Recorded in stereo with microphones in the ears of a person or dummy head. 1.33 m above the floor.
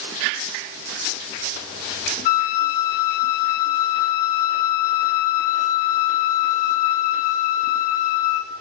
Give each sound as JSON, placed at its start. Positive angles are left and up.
{"t": 2.2, "sound": "a flute", "side_deg": 50, "distance_m": 1.6}